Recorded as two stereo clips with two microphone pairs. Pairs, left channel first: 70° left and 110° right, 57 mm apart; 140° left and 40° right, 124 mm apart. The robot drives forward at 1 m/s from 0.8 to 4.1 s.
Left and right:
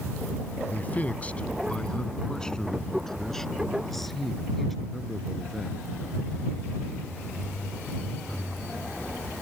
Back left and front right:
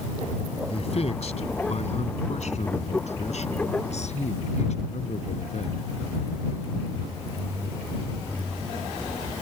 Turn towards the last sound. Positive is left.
turn(degrees=160)